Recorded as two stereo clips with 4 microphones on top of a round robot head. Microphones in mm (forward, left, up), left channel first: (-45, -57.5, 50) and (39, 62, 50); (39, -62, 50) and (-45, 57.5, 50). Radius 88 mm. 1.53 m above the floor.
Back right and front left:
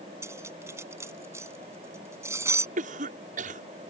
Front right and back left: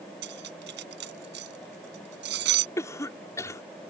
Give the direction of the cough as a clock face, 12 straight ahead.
11 o'clock.